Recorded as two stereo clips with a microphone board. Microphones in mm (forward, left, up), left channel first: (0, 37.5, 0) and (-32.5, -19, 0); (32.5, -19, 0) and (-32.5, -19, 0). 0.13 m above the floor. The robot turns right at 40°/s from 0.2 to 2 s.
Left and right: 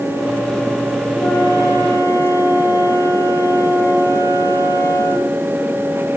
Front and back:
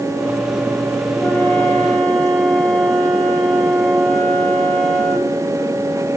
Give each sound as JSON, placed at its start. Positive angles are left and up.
{"t": 1.2, "sound": "a flute", "azimuth_deg": 55, "distance_m": 2.0}